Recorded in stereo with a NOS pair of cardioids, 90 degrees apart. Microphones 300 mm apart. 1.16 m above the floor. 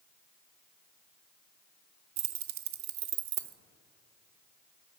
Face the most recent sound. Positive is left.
turn(degrees=-65)